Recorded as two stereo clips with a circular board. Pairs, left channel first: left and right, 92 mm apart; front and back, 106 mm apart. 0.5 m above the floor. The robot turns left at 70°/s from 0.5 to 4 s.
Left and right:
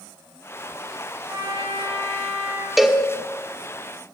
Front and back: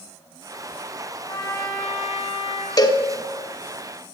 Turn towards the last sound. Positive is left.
turn(degrees=-90)